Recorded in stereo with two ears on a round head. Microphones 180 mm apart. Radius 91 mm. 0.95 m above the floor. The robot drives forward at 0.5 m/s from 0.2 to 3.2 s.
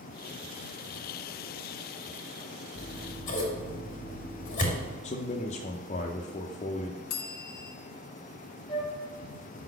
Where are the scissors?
45° left (ahead or behind), 1.8 m; by 4.9 s 40° left (ahead or behind), 2.0 m.